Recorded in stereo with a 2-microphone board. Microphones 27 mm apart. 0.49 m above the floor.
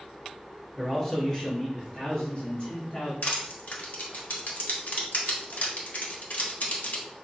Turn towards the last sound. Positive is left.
turn(degrees=70)  # may be behind; listen again after turning